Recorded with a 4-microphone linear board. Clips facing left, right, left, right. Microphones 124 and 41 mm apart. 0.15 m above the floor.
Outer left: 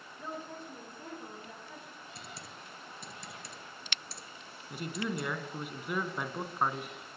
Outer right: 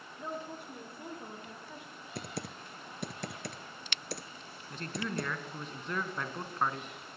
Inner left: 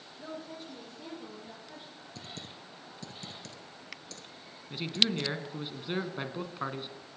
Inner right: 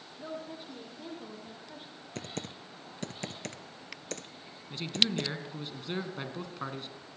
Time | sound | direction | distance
0.2 | a woman speaking | 15° right (ahead or behind) | 6.5 m
2.1 | typing on a keyboard | 65° right (ahead or behind) | 1.0 m
4.7 | a man speaking | 10° left (ahead or behind) | 1.6 m